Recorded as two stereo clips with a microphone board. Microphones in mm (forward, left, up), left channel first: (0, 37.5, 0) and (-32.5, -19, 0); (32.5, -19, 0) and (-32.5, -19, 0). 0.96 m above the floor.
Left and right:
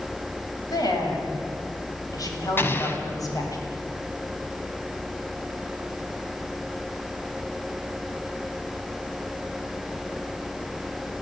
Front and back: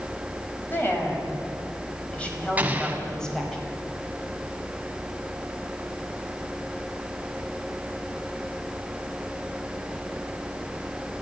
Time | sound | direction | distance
0.7 | a woman speaking | 60° left | 5.5 m
2.6 | an explosion | 110° left | 2.0 m